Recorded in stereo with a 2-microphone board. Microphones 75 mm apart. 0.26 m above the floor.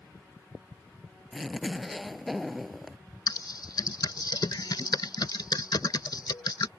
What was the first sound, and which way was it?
A zipper, centre (ahead or behind).